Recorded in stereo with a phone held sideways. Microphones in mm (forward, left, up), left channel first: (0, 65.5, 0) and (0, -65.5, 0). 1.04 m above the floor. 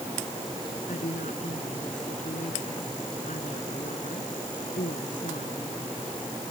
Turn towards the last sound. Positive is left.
turn(degrees=75)  # may be behind; listen again after turning